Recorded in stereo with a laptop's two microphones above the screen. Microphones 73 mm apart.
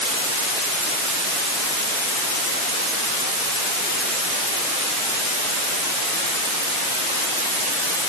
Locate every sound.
Only background noise.